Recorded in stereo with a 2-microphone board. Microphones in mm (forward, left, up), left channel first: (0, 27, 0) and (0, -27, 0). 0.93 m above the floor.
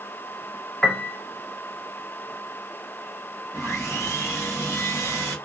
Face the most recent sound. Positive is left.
turn(degrees=70)  # may be behind; listen again after turning